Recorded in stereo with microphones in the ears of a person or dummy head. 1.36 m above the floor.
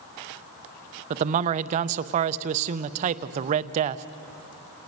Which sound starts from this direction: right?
A man speaking, at 1.1 s.